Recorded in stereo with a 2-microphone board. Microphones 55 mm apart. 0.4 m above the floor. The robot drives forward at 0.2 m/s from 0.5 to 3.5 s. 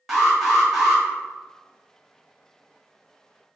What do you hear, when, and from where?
0.1 s an alarm: 5° right (ahead or behind), 0.8 m